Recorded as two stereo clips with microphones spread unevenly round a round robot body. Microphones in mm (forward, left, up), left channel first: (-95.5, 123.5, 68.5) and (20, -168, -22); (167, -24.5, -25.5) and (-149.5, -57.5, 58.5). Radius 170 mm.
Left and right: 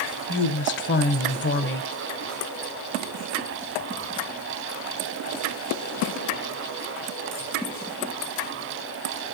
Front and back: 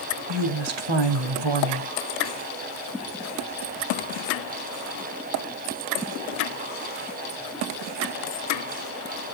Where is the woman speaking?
170° left, 1.7 m.